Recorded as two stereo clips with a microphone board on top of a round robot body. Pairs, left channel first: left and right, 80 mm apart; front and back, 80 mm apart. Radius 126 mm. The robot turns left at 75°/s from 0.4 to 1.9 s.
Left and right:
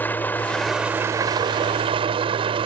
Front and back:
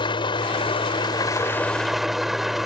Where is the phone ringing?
No phone ringing in this recording.